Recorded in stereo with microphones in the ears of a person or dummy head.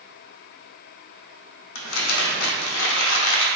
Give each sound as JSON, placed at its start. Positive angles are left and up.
{"t": 1.8, "sound": "crumpling", "side_deg": 80, "distance_m": 0.8}